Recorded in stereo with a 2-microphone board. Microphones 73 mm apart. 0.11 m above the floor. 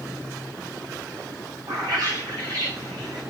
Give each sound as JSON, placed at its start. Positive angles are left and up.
{"t": 1.7, "sound": "a bird", "side_deg": -60, "distance_m": 3.5}